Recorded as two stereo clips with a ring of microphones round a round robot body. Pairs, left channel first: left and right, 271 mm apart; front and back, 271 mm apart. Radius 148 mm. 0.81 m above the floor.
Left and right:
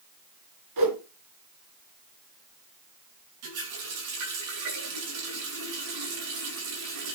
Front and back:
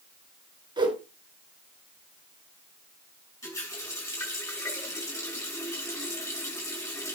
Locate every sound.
0.8 s a whoosh: 105° right, 3 m
3.4 s a running tap: 80° right, 7.5 m